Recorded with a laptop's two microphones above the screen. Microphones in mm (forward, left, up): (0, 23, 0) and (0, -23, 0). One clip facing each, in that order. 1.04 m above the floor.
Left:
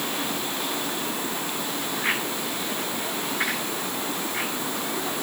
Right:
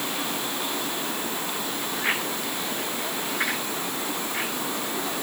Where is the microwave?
No microwave in this recording.